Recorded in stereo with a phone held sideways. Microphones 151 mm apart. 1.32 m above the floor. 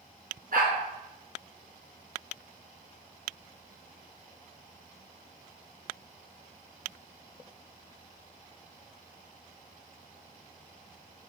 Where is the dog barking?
70° right (ahead or behind), 4 m.